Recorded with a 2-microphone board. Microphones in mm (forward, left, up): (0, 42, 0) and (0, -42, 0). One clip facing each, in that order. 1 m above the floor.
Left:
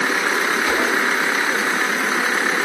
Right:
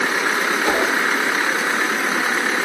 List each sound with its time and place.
0.6 s a whoosh: 40° right (ahead or behind), 6 m